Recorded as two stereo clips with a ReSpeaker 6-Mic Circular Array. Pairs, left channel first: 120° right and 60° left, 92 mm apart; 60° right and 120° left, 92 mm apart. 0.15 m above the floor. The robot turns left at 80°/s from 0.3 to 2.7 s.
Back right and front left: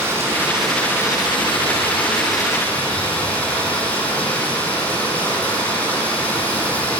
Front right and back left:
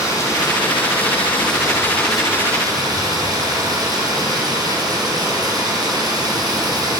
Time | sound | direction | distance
0.0 | running water | 5° right | 6 m